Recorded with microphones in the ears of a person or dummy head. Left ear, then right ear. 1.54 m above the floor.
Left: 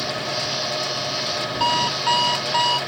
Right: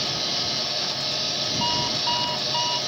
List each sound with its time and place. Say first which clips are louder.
1.6 s an alarm clock: left 6 dB; 40° left (ahead or behind)